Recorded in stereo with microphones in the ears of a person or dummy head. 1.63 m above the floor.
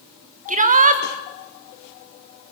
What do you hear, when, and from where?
0.5 s a shout: 40° right (ahead or behind), 2.5 m